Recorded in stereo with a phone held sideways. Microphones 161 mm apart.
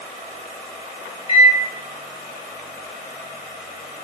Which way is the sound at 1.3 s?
35° left (ahead or behind).